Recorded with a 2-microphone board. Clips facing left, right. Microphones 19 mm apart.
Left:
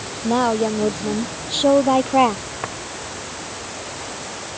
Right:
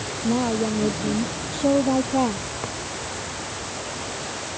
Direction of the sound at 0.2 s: 55° left (ahead or behind).